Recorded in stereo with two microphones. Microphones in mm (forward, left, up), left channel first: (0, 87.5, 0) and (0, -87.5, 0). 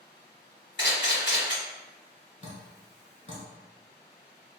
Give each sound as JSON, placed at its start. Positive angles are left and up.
{"t": 0.8, "sound": "a camera shutter", "side_deg": 80, "distance_m": 1.7}
{"t": 2.4, "sound": "dripping", "side_deg": 40, "distance_m": 0.7}